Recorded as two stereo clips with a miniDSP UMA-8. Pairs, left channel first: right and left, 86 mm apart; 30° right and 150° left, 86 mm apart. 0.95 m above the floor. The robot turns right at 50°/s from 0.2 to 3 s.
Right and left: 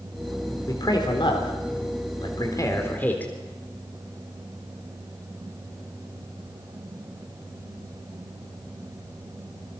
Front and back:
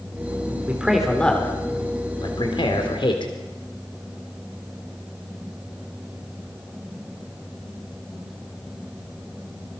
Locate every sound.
0.7 s a man speaking: 140° right, 3.5 m; by 3.3 s 20° right, 3.5 m